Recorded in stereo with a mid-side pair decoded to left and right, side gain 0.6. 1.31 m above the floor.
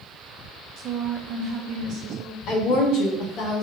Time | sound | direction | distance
0.8 | a woman speaking | 55° right | 0.8 m
2.5 | a woman speaking | 60° left | 1.4 m